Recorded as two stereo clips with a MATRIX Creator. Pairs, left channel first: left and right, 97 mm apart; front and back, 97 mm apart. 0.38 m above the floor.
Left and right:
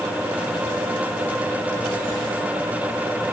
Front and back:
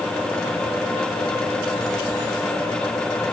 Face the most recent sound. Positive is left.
No sound to turn to.